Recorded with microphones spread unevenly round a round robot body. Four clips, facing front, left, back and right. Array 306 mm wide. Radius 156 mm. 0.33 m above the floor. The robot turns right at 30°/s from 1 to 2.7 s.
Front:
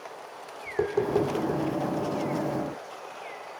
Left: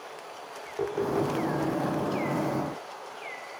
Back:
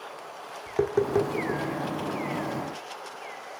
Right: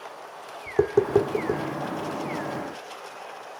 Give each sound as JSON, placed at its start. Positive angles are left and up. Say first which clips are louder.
{"t": 0.7, "sound": "tapping", "louder": "right 8 dB, back 1 dB", "azimuth_deg": -110, "distance_m": 1.9}